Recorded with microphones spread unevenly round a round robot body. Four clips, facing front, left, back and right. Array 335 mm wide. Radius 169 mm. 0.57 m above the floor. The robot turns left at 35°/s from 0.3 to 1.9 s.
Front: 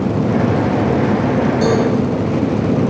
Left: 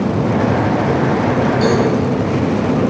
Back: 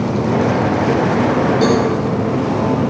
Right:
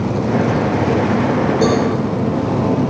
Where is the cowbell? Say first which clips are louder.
Even, back 1 dB; 110° right, 4.5 m; by 1.8 s 115° right, 4.5 m.